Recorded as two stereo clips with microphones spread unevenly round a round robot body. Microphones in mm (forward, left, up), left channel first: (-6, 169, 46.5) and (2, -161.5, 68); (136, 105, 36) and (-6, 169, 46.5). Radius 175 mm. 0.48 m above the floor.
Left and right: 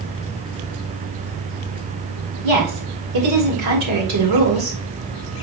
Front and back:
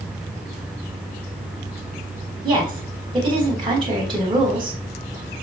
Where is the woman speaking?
110° right, 2.5 m.